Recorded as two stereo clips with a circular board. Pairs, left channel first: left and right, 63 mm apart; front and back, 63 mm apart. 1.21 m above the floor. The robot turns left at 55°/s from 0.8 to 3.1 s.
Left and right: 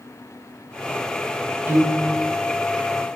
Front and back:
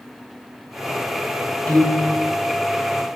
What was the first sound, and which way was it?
A piano, 65° right.